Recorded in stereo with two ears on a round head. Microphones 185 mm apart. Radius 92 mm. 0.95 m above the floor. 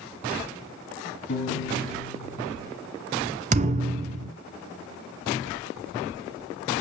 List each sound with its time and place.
1.3 s a piano: 60° left (ahead or behind), 1.5 m
3.5 s a thud: 35° right (ahead or behind), 0.6 m